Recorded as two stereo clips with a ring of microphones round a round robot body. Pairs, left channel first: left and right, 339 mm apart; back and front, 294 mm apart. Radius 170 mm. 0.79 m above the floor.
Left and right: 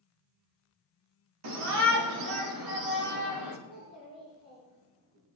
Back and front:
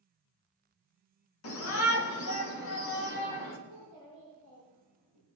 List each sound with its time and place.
1.4 s a shout: 130° right, 2 m; by 3.6 s 125° right, 3.5 m
3.7 s a child speaking: 45° right, 7.5 m